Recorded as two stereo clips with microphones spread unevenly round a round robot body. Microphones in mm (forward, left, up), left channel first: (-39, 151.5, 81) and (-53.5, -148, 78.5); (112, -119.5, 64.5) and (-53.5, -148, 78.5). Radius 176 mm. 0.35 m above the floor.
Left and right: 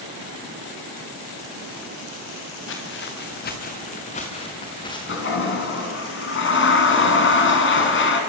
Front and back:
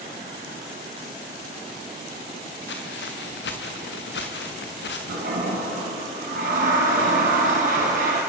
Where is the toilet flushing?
140° left, 3 m.